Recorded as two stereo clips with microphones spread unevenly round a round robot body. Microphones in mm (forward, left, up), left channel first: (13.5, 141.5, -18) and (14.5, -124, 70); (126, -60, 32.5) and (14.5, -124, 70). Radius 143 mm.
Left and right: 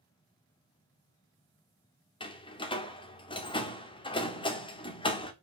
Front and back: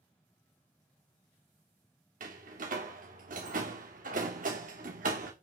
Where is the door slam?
160° left, 1.8 m.